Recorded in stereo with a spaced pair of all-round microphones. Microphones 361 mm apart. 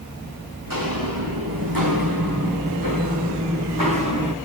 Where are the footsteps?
65° right (ahead or behind), 5 m; by 4.3 s 60° right (ahead or behind), 3.5 m.